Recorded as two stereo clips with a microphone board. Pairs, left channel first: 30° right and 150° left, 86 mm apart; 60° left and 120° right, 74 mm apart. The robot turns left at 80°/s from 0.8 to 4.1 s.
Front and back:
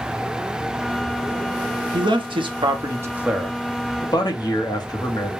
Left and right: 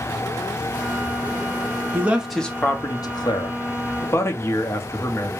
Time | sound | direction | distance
1.9 | a man speaking | straight behind | 0.9 m